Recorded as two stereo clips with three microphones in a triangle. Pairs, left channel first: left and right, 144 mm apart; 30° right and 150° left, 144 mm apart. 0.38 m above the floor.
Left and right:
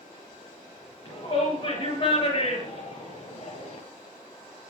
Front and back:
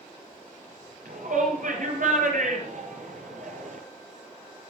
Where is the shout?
145° left, 9 m; by 3.8 s 140° left, 8 m.